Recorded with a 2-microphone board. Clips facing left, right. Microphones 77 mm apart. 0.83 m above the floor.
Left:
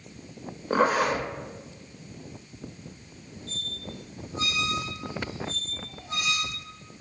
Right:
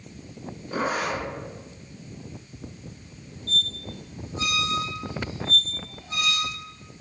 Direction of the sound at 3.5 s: 30° left (ahead or behind).